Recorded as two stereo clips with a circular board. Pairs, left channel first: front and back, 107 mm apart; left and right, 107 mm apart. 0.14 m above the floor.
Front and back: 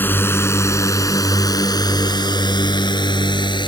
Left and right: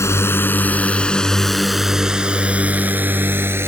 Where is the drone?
55° left; by 3.7 s 30° right.